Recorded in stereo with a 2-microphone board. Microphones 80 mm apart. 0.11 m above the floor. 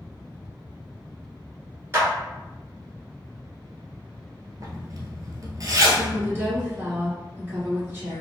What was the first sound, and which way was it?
A clap, 30° right (ahead or behind).